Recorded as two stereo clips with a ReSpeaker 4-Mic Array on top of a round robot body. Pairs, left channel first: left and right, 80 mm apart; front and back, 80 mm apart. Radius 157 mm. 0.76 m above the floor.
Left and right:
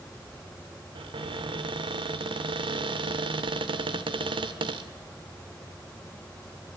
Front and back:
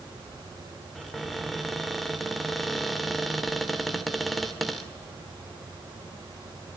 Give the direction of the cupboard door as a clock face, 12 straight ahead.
3 o'clock.